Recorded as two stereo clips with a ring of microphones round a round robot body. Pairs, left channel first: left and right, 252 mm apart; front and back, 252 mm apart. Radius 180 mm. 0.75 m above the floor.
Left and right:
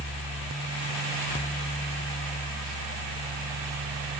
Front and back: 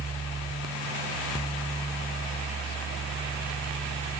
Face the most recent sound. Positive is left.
No sound to turn to.